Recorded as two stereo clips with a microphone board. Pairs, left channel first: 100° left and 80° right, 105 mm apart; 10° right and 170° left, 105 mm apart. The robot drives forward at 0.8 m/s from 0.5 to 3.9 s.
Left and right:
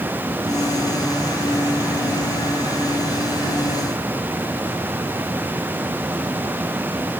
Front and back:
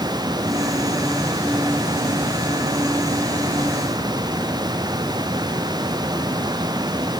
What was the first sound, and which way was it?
Only background noise.